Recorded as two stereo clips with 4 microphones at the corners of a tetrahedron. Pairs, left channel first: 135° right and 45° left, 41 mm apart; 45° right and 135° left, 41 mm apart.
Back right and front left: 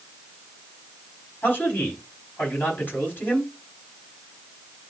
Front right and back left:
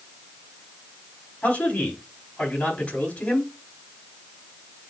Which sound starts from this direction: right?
A man speaking, at 1.4 s.